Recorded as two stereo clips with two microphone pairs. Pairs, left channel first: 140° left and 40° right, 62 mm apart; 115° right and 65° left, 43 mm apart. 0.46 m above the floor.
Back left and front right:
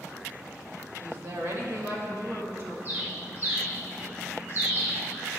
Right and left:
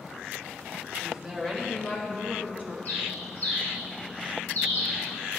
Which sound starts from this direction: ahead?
A woman speaking, at 1.0 s.